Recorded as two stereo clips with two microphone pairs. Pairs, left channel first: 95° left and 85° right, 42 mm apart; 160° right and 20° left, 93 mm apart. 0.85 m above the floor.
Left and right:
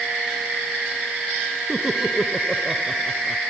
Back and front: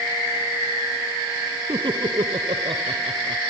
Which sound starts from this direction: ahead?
Laughter, at 1.7 s.